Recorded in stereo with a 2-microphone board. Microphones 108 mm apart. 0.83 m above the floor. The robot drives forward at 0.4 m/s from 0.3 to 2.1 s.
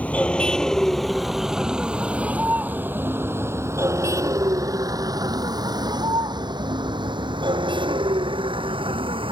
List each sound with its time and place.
0.0 s a vehicle: 15° left (ahead or behind); by 9.3 s 55° right (ahead or behind)